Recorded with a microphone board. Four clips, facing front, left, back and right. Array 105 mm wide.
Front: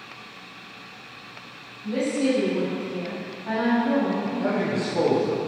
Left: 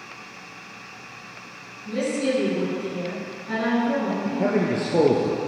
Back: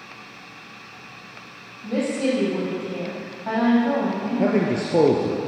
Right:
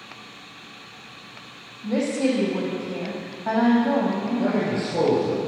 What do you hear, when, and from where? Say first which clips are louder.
1.8 s a woman speaking: right 2 dB, even; 115° right, 6 m
4.4 s a man speaking: left 3 dB, back 7 dB; 155° left, 2 m